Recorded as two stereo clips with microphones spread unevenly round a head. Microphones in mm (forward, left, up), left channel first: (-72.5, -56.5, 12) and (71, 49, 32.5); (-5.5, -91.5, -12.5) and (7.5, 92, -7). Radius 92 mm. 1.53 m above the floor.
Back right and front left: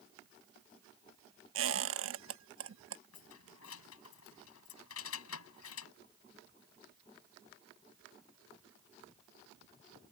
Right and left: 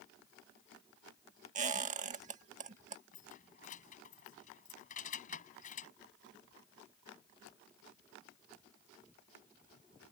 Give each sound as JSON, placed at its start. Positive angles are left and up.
{"t": 1.6, "sound": "a squeak", "azimuth_deg": 35}
{"t": 3.1, "sound": "keys jangling", "azimuth_deg": -145}